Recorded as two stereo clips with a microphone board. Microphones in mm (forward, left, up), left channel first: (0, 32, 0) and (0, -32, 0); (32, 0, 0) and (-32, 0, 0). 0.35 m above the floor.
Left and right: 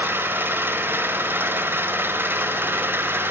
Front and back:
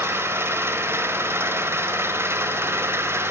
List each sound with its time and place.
0.0 s an engine running: 140° right, 0.7 m